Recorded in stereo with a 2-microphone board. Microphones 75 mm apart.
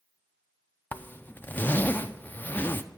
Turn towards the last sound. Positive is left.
turn(degrees=25)  # may be behind; listen again after turning